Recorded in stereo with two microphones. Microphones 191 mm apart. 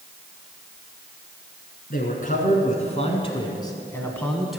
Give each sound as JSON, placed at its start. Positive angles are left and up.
{"t": 1.9, "sound": "a man speaking", "side_deg": 50, "distance_m": 1.9}